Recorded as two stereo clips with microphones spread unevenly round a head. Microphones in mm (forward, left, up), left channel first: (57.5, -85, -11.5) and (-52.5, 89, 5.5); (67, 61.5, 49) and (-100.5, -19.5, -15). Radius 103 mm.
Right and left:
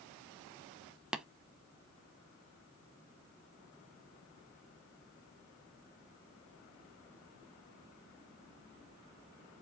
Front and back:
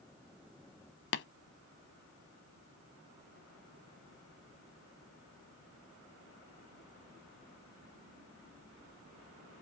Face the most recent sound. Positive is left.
turn(degrees=30)